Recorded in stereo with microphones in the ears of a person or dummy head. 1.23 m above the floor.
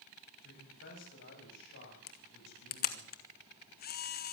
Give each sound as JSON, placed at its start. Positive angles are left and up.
{"t": 0.4, "sound": "a man speaking", "side_deg": 55, "distance_m": 8.0}
{"t": 2.1, "sound": "a camera shutter", "side_deg": 45, "distance_m": 1.2}